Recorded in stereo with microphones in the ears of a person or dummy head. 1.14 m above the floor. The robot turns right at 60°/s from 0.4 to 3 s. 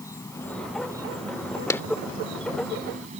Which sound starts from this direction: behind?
An insect, at 0.0 s.